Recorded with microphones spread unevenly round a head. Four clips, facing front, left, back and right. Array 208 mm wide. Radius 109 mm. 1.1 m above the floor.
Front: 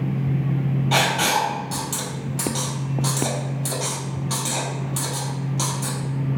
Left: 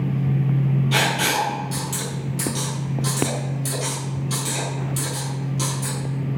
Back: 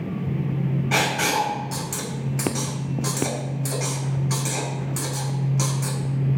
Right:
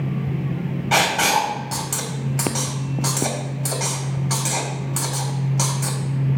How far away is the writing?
About 4 m.